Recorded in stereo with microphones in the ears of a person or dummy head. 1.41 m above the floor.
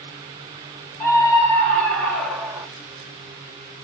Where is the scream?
10° left (ahead or behind), 2.5 m; by 2.7 s 10° right (ahead or behind), 1.1 m.